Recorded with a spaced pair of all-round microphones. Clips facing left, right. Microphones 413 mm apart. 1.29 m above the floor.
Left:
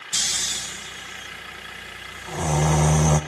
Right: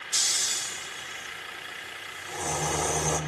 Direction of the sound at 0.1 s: 80° left.